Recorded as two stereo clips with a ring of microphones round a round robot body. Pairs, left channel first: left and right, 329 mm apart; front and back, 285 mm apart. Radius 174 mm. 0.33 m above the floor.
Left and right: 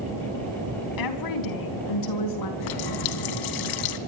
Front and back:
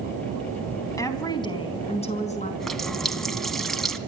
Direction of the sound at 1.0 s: 80° left.